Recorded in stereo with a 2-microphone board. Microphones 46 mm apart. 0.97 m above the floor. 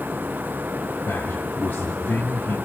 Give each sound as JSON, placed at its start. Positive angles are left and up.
{"t": 1.1, "sound": "a man speaking", "side_deg": 70, "distance_m": 2.0}